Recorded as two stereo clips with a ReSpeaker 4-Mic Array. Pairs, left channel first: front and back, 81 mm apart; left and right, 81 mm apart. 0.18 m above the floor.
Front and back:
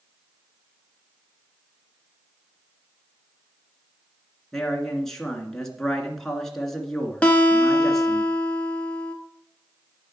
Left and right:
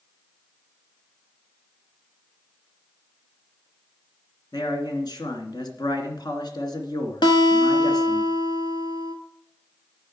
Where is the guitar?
75° left, 1.3 m.